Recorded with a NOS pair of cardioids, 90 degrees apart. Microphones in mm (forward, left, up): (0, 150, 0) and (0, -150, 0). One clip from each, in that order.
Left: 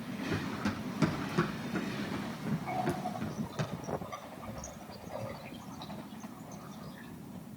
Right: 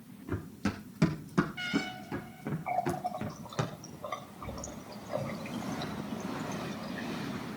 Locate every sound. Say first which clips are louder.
0.3 s running footsteps: left 1 dB; 15° right, 5 m; by 3.7 s 45° right, 4.5 m
2.7 s a running tap: right 3 dB; 60° right, 4 m